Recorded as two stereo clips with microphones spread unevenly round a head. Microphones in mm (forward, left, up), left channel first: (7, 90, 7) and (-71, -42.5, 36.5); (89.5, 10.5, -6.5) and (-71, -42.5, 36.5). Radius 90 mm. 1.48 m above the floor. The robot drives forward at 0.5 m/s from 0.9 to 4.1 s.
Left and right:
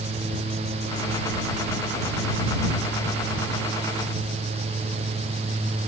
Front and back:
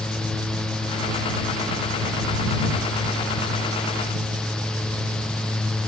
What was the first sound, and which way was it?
Only background noise.